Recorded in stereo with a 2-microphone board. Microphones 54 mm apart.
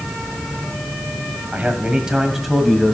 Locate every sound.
1.5 s a man speaking: 30° right (ahead or behind), 1.7 m; by 3.0 s 5° left (ahead or behind), 2.0 m